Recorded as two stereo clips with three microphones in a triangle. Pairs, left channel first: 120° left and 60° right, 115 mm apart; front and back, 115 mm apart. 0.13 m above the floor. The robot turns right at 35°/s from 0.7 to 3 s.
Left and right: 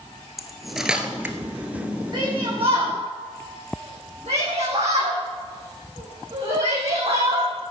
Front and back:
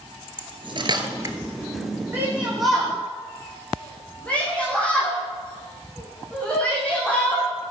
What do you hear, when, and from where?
0.4 s cutlery clinking: 150° right, 1.4 m; by 1.4 s 125° right, 1.4 m
2.1 s a shout: 110° right, 7 m; by 7.5 s 80° right, 7 m